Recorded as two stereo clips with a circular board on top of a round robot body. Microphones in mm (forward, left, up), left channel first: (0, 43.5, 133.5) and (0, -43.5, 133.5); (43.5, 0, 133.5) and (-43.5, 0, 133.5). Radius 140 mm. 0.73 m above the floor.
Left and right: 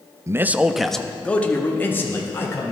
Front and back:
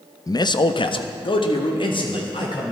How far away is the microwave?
I don't hear a microwave.